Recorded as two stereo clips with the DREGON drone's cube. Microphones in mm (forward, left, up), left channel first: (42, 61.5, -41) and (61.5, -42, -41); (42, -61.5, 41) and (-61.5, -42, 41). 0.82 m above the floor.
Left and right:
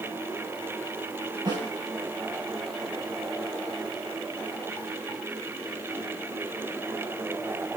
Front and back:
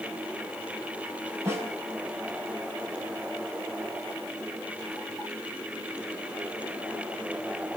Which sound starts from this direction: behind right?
A snare drum, at 1.4 s.